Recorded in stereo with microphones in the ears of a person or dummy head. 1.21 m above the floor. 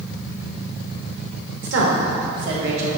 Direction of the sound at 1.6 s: 80° right.